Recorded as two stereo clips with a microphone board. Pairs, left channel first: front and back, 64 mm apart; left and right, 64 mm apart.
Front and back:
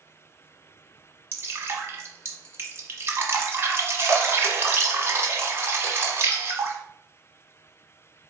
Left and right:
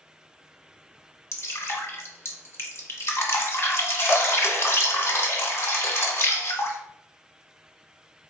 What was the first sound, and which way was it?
Dripping, 130° left.